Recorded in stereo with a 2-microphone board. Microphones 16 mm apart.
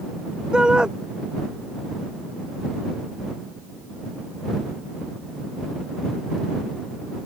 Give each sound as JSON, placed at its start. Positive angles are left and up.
{"t": 0.5, "sound": "a shout", "side_deg": -60}